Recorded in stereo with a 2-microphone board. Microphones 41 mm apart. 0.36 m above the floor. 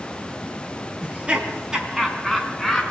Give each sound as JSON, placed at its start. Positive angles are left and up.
{"t": 1.0, "sound": "laughter", "side_deg": -30, "distance_m": 4.0}